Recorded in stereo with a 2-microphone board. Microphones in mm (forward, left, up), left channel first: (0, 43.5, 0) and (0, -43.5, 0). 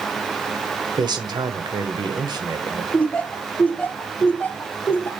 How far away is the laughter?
About 1.3 m.